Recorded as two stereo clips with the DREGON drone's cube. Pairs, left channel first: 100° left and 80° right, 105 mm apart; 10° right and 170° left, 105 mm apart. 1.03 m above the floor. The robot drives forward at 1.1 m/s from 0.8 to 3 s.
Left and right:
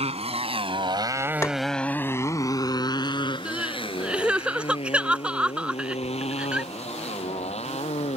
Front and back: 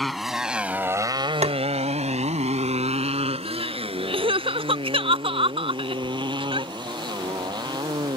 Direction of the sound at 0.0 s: 100° right.